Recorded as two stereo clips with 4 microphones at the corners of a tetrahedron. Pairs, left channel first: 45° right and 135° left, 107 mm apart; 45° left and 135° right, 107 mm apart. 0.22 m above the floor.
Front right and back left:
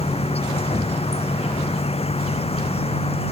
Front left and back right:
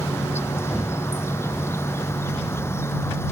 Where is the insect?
20° right.